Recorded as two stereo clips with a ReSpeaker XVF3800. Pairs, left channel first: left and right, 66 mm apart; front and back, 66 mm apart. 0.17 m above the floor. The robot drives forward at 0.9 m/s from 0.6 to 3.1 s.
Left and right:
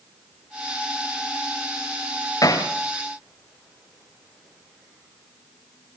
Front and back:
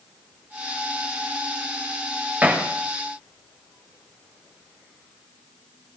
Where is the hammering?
115° left, 4.5 m.